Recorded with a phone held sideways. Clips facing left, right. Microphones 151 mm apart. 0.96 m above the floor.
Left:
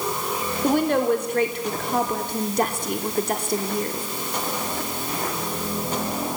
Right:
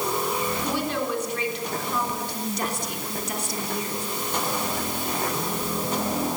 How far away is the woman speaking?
About 3 m.